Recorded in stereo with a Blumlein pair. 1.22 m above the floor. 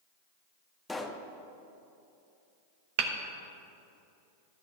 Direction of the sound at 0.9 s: 10° left.